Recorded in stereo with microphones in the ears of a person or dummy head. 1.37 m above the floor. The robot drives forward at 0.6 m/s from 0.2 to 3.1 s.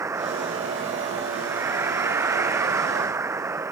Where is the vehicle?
15° right (ahead or behind).